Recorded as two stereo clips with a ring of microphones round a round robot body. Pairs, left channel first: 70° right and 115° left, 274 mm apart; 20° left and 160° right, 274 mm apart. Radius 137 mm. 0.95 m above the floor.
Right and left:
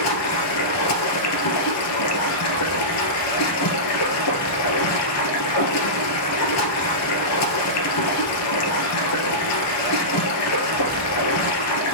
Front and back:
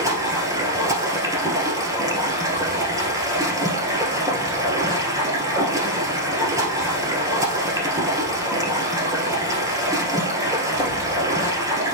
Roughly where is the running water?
Right.